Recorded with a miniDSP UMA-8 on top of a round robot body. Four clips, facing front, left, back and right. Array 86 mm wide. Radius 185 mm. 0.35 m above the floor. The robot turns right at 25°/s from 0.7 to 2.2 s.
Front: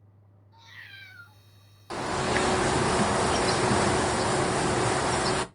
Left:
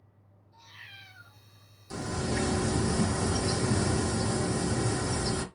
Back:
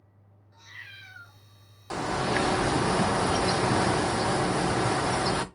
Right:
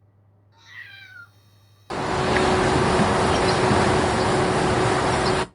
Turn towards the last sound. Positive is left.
turn(degrees=-85)